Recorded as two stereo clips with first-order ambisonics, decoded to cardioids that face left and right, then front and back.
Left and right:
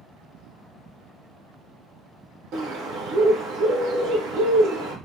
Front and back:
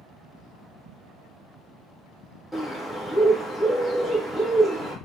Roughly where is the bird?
Right.